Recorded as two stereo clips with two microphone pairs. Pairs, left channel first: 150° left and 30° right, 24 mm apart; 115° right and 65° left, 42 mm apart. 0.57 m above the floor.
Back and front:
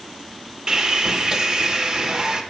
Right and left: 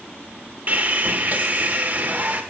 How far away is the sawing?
About 1.0 m.